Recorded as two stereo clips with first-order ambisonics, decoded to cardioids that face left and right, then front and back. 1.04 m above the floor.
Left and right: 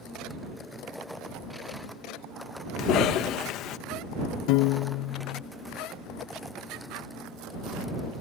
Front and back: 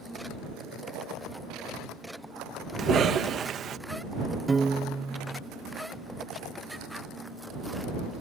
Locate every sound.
2.8 s a cough: 125° left
4.5 s a piano: 100° left